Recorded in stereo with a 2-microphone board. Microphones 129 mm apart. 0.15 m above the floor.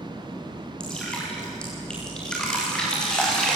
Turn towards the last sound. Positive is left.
turn(degrees=5)  # may be behind; listen again after turning